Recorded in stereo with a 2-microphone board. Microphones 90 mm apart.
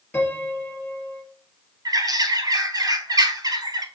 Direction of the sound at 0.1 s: 15° left (ahead or behind).